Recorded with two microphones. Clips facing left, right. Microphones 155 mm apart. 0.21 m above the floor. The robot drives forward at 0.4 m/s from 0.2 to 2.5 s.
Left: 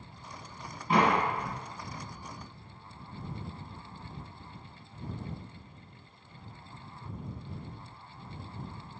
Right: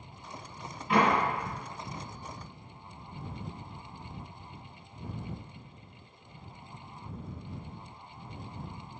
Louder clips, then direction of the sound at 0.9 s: Even; 40° left (ahead or behind).